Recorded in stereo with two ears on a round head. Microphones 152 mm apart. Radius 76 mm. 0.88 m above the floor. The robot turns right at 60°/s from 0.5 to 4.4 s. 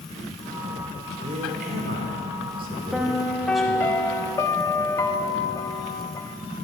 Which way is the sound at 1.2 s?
140° right.